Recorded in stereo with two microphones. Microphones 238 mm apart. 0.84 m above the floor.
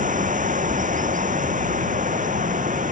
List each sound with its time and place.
0.0 s running water: 35° right (ahead or behind)